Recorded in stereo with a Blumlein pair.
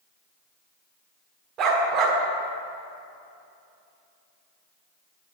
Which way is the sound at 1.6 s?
35° right.